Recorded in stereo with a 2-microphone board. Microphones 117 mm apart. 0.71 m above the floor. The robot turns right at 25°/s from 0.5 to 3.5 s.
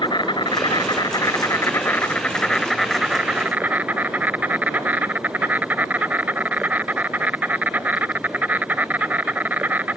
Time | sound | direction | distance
0.0 | an insect | 125° left | ?